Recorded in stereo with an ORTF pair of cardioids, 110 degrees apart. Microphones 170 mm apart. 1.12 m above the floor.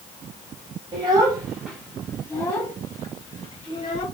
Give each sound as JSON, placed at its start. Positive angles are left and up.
{"t": 0.9, "sound": "a child speaking", "azimuth_deg": -30, "distance_m": 0.8}